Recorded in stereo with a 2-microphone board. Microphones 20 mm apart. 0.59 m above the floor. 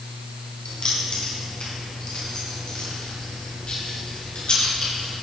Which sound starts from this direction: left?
Keys jangling, at 0.7 s.